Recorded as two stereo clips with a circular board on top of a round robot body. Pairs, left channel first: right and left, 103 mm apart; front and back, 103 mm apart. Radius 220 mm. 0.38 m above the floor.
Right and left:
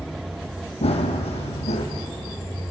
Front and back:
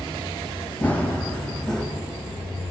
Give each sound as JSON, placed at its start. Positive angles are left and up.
{"t": 0.8, "sound": "running footsteps", "azimuth_deg": -75, "distance_m": 1.8}